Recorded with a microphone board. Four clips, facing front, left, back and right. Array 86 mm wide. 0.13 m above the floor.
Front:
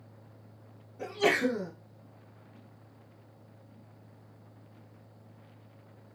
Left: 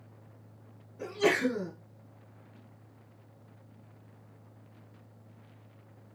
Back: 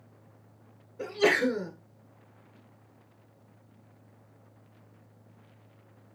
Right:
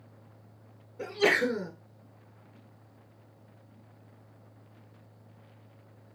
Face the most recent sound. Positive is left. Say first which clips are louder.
# right 1 dB, back 2 dB
turn(degrees=-145)